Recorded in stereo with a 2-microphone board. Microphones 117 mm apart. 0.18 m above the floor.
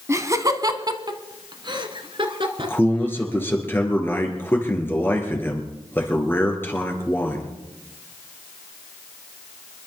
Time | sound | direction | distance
0.1 | laughter | 25° right (ahead or behind) | 1.0 m
2.6 | a man speaking | 20° left (ahead or behind) | 3.5 m